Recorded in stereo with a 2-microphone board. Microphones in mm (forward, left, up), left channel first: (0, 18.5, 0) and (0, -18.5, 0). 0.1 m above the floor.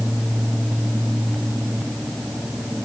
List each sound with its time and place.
Only background noise.